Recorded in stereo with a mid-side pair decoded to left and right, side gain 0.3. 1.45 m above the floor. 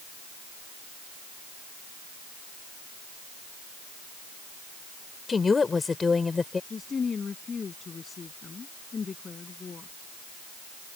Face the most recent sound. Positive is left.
turn(degrees=55)